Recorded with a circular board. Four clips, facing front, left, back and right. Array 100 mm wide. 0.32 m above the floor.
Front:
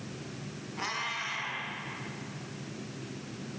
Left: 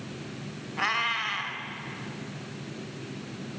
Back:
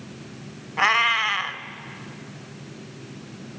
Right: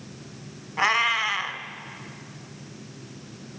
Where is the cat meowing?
155° right, 1.6 m.